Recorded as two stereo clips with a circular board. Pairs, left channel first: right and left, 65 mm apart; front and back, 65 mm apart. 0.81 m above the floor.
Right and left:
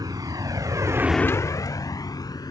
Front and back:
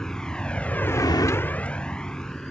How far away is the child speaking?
No child speaking in this recording.